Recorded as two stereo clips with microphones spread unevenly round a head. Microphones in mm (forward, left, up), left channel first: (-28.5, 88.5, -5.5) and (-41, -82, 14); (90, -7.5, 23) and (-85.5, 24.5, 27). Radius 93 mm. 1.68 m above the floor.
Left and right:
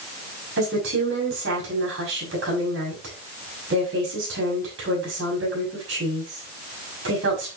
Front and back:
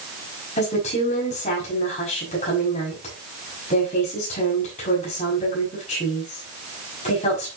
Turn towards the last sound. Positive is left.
turn(degrees=-65)